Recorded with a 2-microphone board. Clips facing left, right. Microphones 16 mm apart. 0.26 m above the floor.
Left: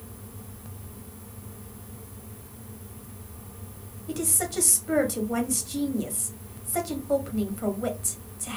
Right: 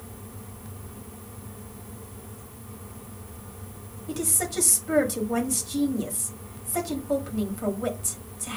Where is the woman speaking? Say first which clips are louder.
Even; 5° left (ahead or behind), 1.1 m.